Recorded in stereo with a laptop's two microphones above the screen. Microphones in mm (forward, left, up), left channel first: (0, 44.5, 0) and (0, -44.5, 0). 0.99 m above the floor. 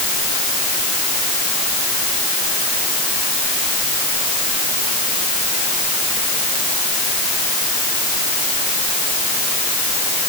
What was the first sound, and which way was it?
Only background noise.